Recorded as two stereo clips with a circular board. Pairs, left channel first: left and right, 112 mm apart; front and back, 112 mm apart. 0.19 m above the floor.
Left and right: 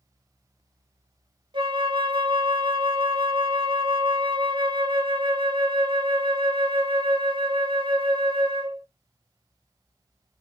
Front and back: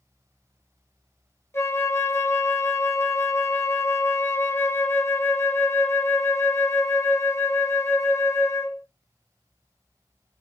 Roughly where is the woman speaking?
I don't hear a woman speaking.